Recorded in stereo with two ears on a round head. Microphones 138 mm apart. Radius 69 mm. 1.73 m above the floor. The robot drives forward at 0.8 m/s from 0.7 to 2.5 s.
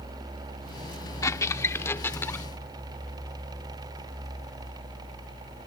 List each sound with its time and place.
1.2 s a squeak: 20° left (ahead or behind); by 2.5 s 15° left (ahead or behind)